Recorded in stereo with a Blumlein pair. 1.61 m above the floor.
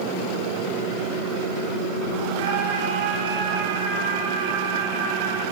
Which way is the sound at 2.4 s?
50° right.